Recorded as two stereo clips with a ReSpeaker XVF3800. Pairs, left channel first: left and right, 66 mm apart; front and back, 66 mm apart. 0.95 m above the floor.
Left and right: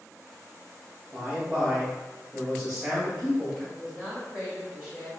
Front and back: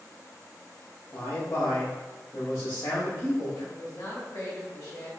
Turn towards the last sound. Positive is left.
turn(degrees=-20)